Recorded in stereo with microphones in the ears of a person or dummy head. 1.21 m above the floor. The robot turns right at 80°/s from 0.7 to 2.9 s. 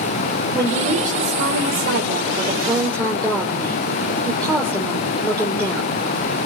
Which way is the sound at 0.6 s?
170° right.